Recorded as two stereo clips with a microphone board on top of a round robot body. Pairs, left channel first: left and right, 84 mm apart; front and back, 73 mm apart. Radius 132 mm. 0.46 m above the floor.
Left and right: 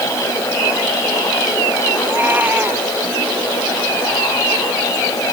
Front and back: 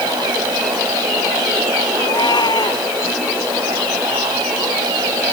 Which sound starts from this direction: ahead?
A cat meowing, at 2.0 s.